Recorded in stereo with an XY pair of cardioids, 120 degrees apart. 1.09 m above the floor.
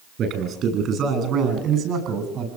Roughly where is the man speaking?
Ahead right.